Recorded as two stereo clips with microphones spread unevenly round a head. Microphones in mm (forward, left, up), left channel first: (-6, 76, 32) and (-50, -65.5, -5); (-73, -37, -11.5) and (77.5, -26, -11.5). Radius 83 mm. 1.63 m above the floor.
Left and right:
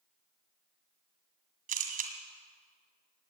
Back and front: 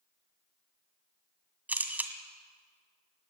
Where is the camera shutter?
70° right, 1.9 m.